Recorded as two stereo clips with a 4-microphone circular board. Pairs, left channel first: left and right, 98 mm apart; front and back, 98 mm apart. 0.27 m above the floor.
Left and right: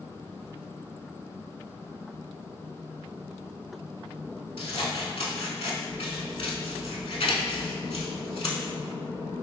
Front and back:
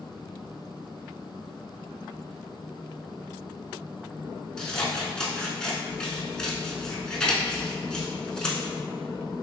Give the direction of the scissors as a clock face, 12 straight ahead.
9 o'clock.